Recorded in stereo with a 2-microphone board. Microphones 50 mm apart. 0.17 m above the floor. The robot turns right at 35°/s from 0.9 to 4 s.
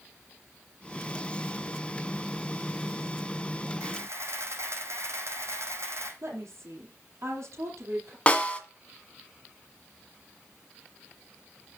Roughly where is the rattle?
I don't hear a rattle.